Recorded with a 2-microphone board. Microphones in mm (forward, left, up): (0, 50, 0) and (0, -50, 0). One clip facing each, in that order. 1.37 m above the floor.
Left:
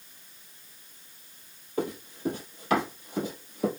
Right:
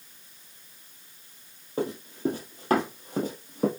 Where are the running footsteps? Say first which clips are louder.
Right 2 dB; 35° right (ahead or behind), 1.8 m; by 3.7 s 50° right (ahead or behind), 2 m.